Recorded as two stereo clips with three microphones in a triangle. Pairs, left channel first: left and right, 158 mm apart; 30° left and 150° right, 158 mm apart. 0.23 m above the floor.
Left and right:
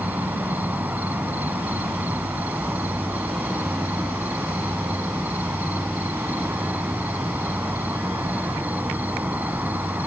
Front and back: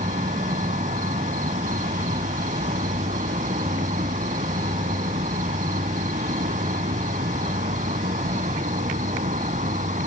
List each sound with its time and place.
0.0 s an insect: 170° right, 0.9 m